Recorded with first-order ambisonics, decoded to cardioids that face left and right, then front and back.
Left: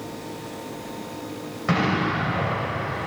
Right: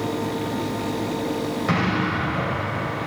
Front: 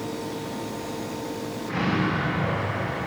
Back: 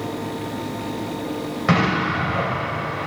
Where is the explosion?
175° left, 4 m.